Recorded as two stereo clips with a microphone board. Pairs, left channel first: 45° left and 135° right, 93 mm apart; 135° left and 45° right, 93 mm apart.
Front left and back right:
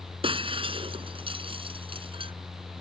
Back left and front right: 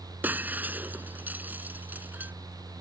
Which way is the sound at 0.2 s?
115° right.